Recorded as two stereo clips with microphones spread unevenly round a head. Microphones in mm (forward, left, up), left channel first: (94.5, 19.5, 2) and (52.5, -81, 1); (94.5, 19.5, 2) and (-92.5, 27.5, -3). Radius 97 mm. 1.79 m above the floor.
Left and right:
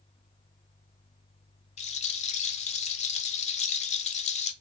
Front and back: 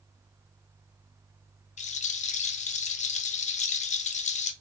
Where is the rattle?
50° left, 0.6 m.